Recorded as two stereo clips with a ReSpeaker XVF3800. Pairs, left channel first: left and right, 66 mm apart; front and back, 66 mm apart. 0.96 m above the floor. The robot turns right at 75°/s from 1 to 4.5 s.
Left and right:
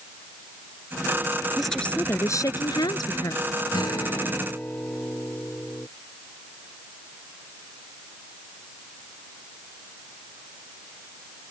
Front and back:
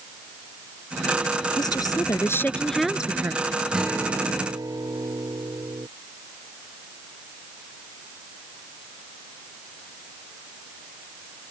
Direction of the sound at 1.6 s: 5° right.